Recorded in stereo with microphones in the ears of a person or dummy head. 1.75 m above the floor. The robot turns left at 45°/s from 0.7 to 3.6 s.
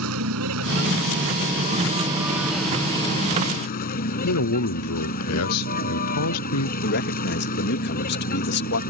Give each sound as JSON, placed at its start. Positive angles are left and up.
{"t": 0.0, "sound": "a vehicle", "azimuth_deg": -95}
{"t": 4.2, "sound": "a man speaking", "side_deg": 85}
{"t": 6.8, "sound": "a man speaking", "side_deg": 60}